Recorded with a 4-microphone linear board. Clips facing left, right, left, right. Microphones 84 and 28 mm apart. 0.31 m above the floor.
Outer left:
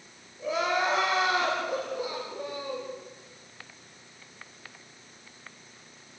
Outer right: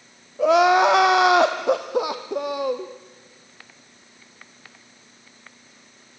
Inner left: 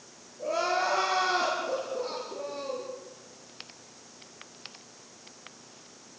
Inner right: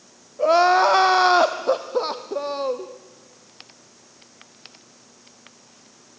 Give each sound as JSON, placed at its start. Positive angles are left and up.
{"t": 0.4, "sound": "crying", "side_deg": -80, "distance_m": 2.5}